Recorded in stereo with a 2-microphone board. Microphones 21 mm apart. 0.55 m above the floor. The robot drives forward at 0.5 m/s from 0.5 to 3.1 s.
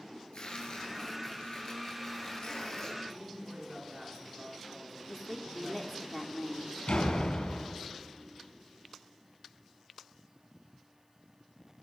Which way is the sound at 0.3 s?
55° left (ahead or behind).